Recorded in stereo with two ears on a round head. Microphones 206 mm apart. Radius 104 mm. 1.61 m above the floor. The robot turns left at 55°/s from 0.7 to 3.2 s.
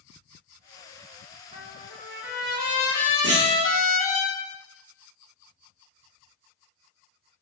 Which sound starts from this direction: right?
A clunk, at 3.2 s.